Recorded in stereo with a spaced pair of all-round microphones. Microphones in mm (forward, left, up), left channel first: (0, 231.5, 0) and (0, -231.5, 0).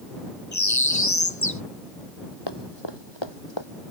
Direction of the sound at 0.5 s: 35° left (ahead or behind).